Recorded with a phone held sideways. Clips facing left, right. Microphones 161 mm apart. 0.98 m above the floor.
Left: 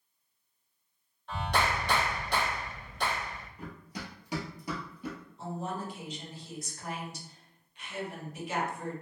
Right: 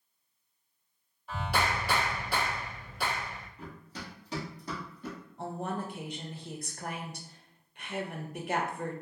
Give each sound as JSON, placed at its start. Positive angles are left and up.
{"t": 1.3, "sound": "a clap", "side_deg": -5, "distance_m": 1.4}
{"t": 3.6, "sound": "running footsteps", "side_deg": 15, "distance_m": 1.5}
{"t": 5.4, "sound": "a woman speaking", "side_deg": -60, "distance_m": 0.6}